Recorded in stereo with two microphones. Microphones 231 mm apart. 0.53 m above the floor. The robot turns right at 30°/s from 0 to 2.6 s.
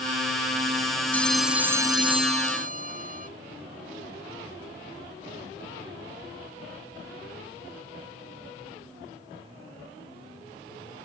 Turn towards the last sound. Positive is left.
turn(degrees=-145)